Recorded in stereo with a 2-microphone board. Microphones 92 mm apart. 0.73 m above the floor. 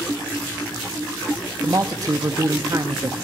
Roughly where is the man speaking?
Right.